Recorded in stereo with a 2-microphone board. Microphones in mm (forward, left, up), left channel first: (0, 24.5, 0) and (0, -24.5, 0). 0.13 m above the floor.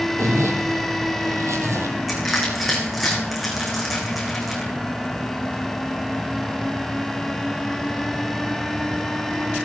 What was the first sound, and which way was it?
A zipper, 70° right (ahead or behind).